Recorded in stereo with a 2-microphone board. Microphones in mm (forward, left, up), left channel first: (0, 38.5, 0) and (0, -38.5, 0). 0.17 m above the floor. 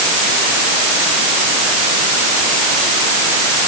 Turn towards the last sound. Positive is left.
No sound to turn to.